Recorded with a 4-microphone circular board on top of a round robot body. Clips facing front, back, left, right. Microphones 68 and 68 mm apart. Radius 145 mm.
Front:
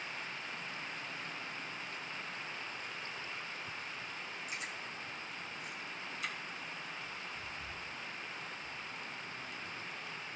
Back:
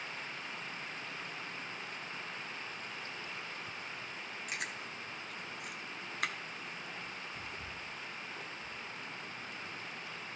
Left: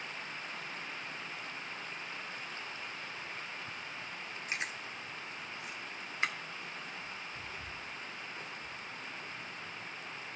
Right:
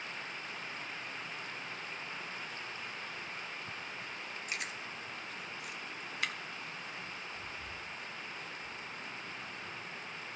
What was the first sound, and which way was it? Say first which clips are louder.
Chewing: back 2 dB, left 3 dB; 150° left.